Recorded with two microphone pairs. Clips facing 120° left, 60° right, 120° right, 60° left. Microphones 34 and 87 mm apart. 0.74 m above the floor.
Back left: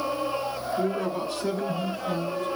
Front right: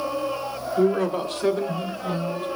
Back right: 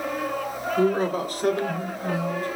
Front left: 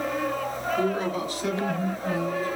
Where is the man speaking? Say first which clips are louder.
Front right 8 dB, back right 6 dB; 65° right, 2.5 m; by 2.5 s 105° right, 3.5 m.